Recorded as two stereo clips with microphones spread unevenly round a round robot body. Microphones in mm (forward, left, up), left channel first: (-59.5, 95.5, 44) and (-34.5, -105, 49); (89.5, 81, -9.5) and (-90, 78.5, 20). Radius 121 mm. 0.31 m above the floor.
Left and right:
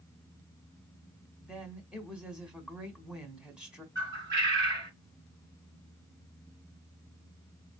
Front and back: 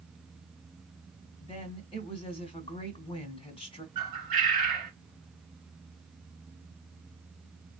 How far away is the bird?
About 2.5 m.